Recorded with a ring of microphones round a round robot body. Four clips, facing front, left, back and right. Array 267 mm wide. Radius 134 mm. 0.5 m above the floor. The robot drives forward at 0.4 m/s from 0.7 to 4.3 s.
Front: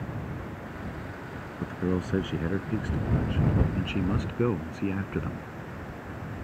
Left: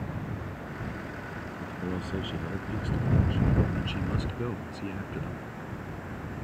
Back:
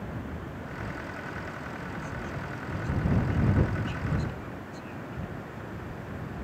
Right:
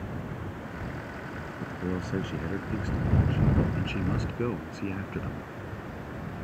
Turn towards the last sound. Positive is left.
turn(degrees=-15)